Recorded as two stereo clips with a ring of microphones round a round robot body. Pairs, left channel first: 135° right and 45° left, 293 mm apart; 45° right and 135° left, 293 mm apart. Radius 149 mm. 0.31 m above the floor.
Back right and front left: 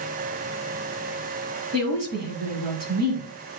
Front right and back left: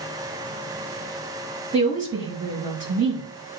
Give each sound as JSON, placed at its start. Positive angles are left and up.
{"t": 1.7, "sound": "a woman speaking", "azimuth_deg": 70, "distance_m": 4.5}